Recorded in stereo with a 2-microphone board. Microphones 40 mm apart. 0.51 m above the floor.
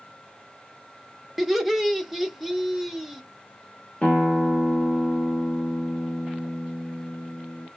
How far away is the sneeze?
No sneeze in this recording.